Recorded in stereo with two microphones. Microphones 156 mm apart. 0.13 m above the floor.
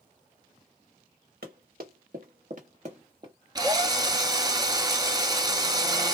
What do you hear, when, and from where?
1.4 s running footsteps: 85° right, 1.4 m; by 3.3 s 30° right (ahead or behind), 1.0 m
3.5 s a drill: 25° right (ahead or behind), 0.6 m